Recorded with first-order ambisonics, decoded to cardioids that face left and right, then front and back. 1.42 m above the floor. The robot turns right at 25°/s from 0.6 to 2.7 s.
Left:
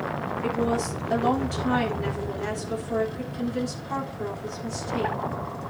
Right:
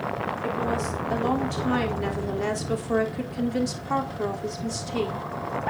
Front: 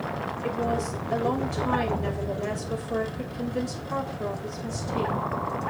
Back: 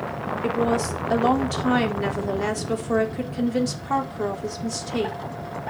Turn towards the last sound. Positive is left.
turn(degrees=-150)